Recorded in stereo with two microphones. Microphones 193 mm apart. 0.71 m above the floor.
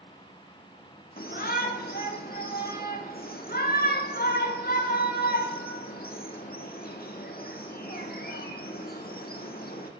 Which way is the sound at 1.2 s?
55° left (ahead or behind).